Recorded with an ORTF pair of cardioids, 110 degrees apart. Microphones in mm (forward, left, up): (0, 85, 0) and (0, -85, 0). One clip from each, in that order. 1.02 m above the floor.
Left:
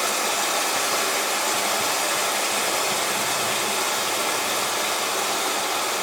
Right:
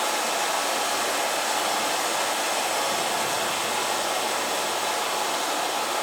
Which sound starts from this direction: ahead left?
Running water, at 0.0 s.